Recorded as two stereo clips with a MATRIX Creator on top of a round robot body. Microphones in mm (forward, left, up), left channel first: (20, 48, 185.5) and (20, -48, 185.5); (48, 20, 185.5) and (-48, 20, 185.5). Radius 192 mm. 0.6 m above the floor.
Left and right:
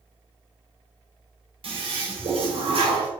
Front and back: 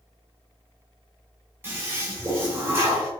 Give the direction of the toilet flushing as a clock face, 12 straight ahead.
4 o'clock.